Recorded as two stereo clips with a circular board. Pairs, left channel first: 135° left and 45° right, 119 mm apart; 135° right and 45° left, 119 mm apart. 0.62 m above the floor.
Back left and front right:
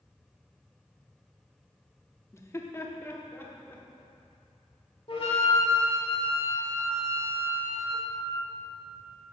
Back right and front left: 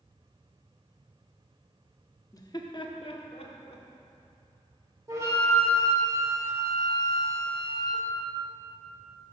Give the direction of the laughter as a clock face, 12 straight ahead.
6 o'clock.